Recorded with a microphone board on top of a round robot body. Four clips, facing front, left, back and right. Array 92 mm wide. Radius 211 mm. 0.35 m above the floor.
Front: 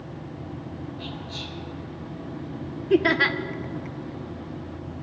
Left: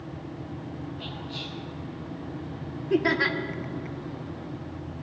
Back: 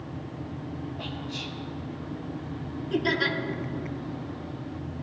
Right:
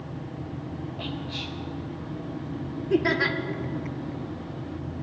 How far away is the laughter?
About 1.6 m.